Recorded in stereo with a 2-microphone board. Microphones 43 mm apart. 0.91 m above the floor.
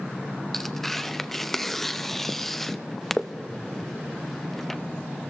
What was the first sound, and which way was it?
Tearing paper, 5° left (ahead or behind).